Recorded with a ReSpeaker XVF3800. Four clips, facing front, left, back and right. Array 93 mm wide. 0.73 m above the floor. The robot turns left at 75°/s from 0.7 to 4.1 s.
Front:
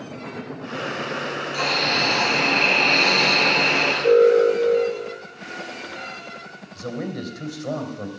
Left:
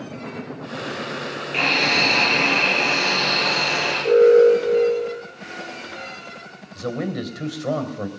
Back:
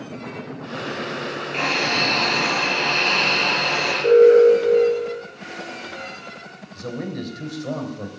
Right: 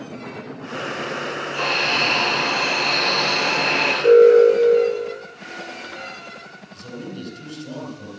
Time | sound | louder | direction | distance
1.5 | a hiss | left 2 dB, back 1 dB | 120° left | 6 m
4.0 | an alarm | right 2 dB, back 4 dB | 120° right | 8.5 m
6.8 | a man speaking | left 8 dB, even | 85° left | 3 m